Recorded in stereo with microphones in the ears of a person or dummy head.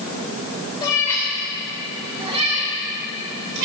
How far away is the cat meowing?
About 2.5 m.